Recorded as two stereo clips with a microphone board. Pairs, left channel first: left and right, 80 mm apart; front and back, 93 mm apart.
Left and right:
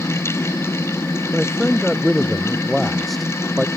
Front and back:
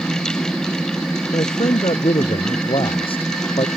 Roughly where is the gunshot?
No gunshot in this recording.